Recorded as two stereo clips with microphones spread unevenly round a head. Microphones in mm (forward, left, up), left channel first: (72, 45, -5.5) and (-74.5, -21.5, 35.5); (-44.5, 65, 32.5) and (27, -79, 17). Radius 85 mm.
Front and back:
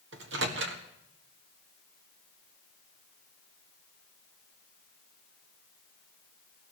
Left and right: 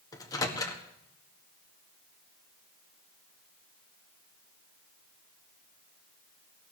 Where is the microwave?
175° right, 1.7 m.